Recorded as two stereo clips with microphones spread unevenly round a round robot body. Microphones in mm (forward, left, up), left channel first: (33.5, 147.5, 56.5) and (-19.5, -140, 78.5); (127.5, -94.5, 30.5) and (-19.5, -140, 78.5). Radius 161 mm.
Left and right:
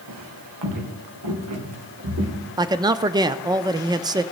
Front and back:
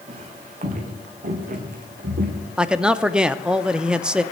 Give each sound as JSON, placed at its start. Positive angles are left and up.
{"t": 0.1, "sound": "footsteps", "azimuth_deg": -125, "distance_m": 3.0}
{"t": 2.6, "sound": "a man speaking", "azimuth_deg": -35, "distance_m": 0.6}